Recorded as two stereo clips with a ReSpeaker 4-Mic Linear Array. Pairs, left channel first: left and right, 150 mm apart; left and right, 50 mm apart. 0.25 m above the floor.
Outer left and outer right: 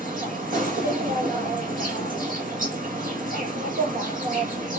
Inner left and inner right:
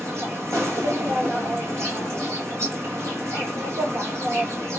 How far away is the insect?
About 1.4 m.